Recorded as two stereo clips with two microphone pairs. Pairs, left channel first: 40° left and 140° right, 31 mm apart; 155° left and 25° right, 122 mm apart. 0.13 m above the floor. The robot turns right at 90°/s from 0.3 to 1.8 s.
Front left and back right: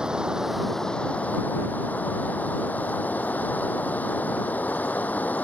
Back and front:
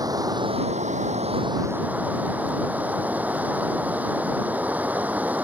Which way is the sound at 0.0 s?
85° right.